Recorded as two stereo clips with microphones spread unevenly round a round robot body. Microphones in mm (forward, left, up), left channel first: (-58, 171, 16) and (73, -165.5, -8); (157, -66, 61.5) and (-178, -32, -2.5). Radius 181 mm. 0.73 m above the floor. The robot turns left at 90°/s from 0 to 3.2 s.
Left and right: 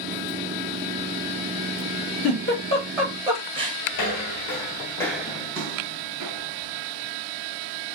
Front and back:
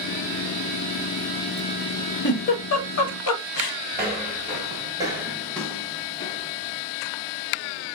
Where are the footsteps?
105° left, 1.0 m; by 6.8 s 65° right, 1.2 m.